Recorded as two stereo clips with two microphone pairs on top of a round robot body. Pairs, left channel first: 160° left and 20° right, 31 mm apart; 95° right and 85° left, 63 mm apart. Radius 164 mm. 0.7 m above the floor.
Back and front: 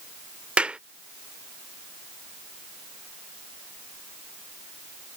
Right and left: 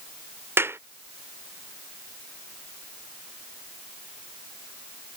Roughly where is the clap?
Ahead left.